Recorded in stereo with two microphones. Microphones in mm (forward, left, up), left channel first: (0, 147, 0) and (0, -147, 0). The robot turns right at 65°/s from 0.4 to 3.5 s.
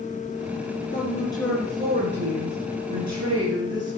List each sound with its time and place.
0.9 s a woman speaking: 140° left, 3.5 m; by 4.0 s 55° right, 3.5 m